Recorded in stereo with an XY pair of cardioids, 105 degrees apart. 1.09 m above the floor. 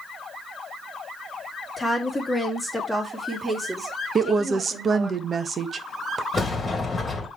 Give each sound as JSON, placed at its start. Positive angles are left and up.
{"t": 1.8, "sound": "a woman speaking", "azimuth_deg": 20, "distance_m": 2.0}
{"t": 4.2, "sound": "a woman speaking", "azimuth_deg": -40, "distance_m": 1.0}
{"t": 6.3, "sound": "a sliding door", "azimuth_deg": 30, "distance_m": 2.0}